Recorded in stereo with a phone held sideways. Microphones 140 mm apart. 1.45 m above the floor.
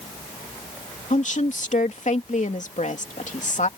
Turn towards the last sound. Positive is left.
turn(degrees=60)  # may be behind; listen again after turning